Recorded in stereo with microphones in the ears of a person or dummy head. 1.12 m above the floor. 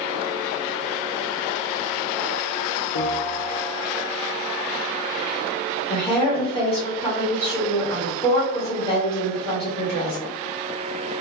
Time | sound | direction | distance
3.0 | a bell | 55° left (ahead or behind) | 0.7 m
5.9 | a woman speaking | 15° left (ahead or behind) | 1.8 m